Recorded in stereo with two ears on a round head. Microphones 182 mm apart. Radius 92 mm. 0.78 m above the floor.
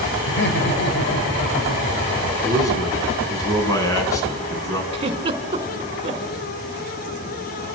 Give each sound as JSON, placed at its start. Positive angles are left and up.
{"t": 0.3, "sound": "laughter", "side_deg": 60, "distance_m": 4.0}
{"t": 2.4, "sound": "a man speaking", "side_deg": 15, "distance_m": 5.5}
{"t": 4.9, "sound": "a giggle", "side_deg": -25, "distance_m": 2.5}